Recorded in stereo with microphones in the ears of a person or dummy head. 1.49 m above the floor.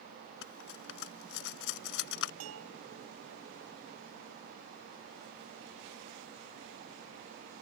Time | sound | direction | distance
0.4 | cutlery clinking | 60° left (ahead or behind) | ?
2.4 | a bell | 85° right | ?